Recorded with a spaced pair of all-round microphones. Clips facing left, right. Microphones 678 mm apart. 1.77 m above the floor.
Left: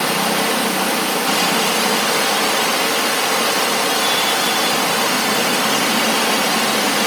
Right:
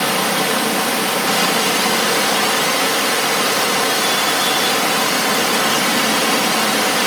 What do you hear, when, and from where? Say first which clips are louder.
0.0 s running water: even; 50° right (ahead or behind), 0.8 m